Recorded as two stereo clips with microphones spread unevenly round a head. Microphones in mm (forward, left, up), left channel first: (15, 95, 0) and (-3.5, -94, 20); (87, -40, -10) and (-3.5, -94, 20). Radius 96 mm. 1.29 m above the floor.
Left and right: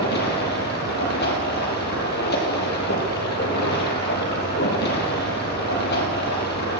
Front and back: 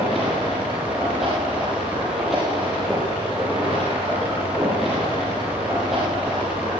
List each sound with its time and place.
0.0 s running water: 125° left, 6 m